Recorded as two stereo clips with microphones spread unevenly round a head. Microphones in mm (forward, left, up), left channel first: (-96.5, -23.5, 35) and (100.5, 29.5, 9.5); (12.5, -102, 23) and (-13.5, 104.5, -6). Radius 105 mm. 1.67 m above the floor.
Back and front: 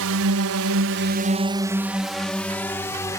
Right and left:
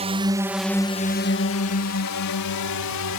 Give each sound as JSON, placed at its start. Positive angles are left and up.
{"t": 0.0, "sound": "a drone", "azimuth_deg": 35}